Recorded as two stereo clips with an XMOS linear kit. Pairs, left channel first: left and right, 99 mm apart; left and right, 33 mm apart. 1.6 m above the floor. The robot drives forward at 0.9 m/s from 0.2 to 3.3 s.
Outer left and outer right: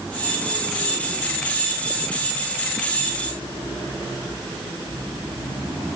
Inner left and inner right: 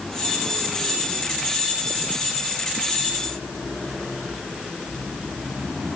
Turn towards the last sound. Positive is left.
No sound to turn to.